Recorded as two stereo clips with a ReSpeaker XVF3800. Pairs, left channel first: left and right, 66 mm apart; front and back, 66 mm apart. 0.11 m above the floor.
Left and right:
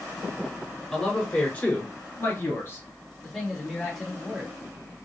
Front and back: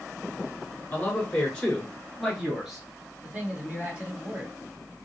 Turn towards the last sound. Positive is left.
turn(degrees=180)